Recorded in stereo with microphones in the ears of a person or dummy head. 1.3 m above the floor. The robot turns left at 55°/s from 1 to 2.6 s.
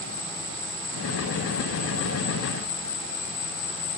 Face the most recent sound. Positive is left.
turn(degrees=70)